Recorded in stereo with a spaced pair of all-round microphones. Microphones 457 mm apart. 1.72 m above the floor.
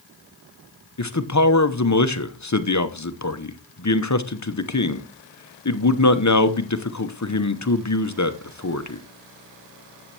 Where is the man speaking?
40° left (ahead or behind), 0.8 m.